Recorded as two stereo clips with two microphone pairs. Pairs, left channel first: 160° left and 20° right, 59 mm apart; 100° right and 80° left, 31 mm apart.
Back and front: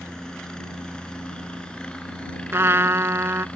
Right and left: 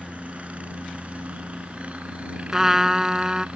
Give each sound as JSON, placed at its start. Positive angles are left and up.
{"t": 0.0, "sound": "a helicopter", "azimuth_deg": 90}
{"t": 2.5, "sound": "a trumpet", "azimuth_deg": 10}